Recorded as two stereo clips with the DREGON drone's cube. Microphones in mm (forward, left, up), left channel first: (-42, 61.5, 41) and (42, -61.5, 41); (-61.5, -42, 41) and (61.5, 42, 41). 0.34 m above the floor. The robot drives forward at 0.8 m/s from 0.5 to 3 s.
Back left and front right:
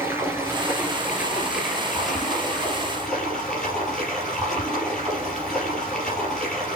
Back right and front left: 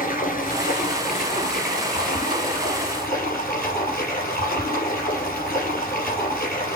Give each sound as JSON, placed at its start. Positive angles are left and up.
{"t": 0.0, "sound": "running water", "azimuth_deg": -130, "distance_m": 3.0}